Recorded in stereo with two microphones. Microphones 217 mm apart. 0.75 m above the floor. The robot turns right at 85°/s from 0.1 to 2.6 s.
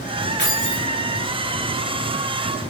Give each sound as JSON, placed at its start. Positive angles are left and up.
{"t": 0.4, "sound": "keys jangling", "azimuth_deg": 130, "distance_m": 1.5}